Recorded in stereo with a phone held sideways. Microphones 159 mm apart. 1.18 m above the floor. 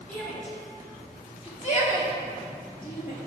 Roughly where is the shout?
Centre.